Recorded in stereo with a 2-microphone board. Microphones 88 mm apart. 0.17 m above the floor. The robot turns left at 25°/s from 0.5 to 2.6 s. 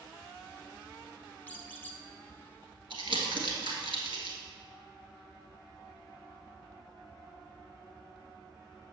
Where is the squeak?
20° left (ahead or behind), 0.8 m.